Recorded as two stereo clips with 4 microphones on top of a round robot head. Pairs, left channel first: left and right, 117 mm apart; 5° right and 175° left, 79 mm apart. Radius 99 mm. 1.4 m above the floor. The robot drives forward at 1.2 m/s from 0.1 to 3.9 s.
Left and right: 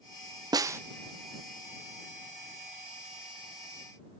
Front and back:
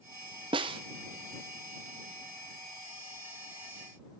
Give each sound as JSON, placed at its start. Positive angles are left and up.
{"t": 0.5, "sound": "a snare drum", "azimuth_deg": -150, "distance_m": 0.6}